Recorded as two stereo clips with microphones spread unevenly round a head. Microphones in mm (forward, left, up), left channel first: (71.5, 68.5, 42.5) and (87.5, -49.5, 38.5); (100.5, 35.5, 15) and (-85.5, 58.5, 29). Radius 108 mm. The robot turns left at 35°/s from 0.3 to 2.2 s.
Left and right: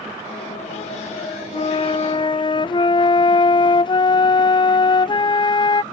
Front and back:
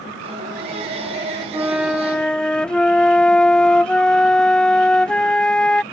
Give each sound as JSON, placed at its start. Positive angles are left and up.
{"t": 1.5, "sound": "a flute", "azimuth_deg": 95}